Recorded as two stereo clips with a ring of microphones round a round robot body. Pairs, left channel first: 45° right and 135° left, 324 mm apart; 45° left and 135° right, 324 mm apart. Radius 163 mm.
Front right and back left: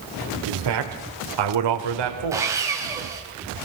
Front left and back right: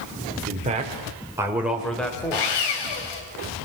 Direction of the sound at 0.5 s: 160° left.